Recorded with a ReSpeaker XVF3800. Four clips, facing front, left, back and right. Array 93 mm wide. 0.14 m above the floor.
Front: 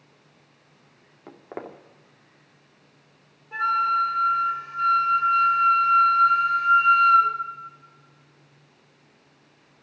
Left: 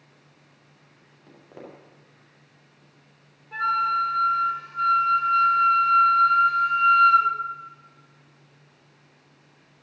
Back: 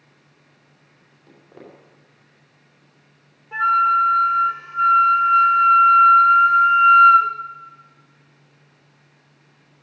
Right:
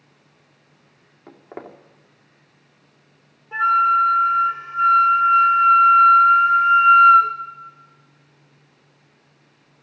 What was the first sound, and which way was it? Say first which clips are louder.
Footsteps: right 6 dB, front 7 dB; 35° right.